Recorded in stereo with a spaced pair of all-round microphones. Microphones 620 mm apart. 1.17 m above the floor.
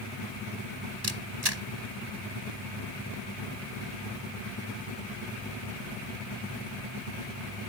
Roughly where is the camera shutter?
Right.